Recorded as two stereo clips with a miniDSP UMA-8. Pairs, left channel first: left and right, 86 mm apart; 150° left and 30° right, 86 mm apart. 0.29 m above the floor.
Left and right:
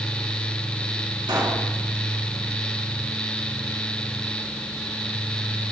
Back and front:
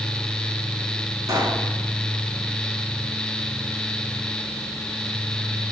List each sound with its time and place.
1.3 s a pop: 70° right, 2.5 m